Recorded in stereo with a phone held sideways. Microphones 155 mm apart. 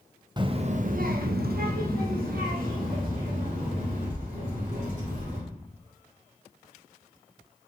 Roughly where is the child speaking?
Right.